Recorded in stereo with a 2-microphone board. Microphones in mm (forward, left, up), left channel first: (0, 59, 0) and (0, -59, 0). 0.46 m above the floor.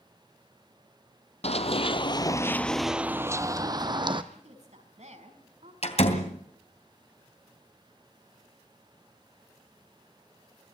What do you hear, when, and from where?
1.4 s running footsteps: 65° left (ahead or behind), 1.1 m; by 4.2 s 45° right (ahead or behind), 1.4 m
4.3 s a woman speaking: 75° right (ahead or behind), 5 m
5.8 s a door slam: 65° left (ahead or behind), 3 m